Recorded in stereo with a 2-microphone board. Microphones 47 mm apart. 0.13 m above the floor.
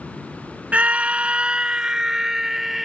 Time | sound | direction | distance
0.7 | a scream | 30° right (ahead or behind) | ?